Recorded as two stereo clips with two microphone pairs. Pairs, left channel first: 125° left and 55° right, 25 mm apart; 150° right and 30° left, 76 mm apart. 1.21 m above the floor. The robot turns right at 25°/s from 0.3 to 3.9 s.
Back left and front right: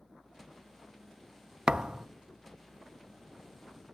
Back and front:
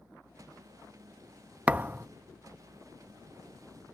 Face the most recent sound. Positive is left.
turn(degrees=25)